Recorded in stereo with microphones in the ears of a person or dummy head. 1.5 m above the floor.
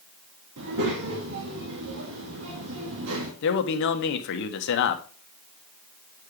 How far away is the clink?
I don't hear a clink.